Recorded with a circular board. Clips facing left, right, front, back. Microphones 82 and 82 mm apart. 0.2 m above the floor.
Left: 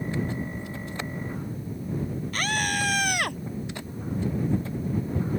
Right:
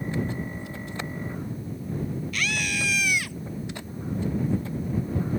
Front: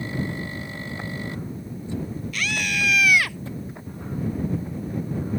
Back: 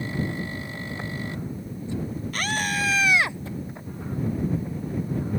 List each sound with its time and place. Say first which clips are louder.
2.3 s a scream: left 4 dB, back 1 dB; 135° left; by 3.4 s 115° left